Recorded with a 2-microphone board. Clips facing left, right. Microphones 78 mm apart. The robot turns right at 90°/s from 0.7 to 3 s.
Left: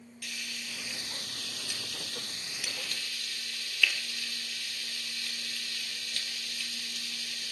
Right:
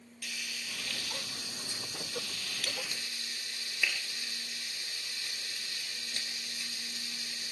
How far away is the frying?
About 3.5 m.